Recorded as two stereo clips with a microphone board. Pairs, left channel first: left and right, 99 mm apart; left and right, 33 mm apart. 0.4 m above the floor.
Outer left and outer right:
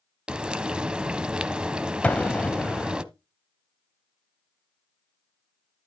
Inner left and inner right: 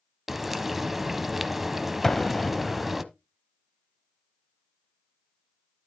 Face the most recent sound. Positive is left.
turn(degrees=15)  # may be behind; listen again after turning